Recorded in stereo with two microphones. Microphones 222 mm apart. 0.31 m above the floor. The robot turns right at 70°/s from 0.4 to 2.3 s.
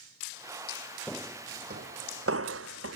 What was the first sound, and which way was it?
Footsteps, 10° left (ahead or behind).